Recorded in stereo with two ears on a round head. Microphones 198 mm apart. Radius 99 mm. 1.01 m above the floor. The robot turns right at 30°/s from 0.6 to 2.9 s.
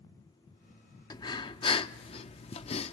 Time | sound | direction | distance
1.1 | breathing | 20° left (ahead or behind) | 0.5 m